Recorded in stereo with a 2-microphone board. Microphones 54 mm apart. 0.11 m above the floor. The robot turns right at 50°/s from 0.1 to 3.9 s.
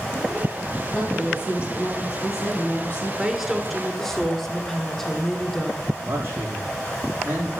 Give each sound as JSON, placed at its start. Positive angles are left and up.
{"t": 0.9, "sound": "a woman speaking", "azimuth_deg": 35, "distance_m": 3.5}
{"t": 3.2, "sound": "a woman speaking", "side_deg": -5, "distance_m": 1.5}
{"t": 6.0, "sound": "a man speaking", "side_deg": -45, "distance_m": 7.0}